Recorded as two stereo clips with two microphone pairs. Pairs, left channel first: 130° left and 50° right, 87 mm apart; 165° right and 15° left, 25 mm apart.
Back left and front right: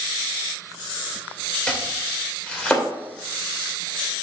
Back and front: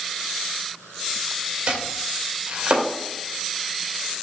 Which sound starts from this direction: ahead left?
Chopping, at 1.7 s.